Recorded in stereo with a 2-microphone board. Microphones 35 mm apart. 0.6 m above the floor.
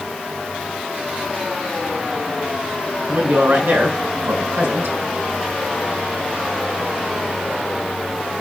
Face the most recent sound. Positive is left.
turn(degrees=-85)